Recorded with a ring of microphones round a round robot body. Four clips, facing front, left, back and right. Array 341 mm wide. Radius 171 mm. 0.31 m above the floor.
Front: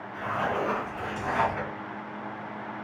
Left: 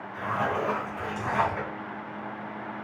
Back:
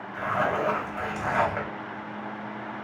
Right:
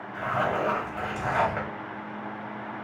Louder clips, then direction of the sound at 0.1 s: Right 1 dB, back 3 dB; 145° right.